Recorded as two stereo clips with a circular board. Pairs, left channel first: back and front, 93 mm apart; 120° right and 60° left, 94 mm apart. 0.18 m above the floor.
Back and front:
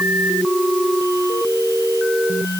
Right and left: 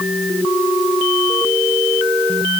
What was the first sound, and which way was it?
Only background noise.